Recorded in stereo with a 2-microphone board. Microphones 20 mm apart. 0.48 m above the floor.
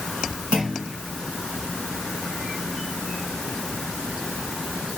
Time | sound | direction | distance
0.5 | a clunk | 70° right (ahead or behind) | 5 m